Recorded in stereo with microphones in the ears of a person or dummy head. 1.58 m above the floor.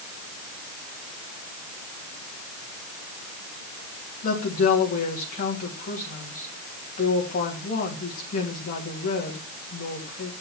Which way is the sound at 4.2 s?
40° left (ahead or behind).